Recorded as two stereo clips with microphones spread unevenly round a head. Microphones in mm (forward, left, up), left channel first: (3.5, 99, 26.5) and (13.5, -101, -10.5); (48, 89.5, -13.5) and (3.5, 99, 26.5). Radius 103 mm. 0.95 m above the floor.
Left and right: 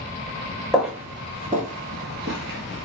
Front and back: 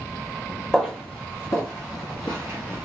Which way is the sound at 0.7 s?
170° left.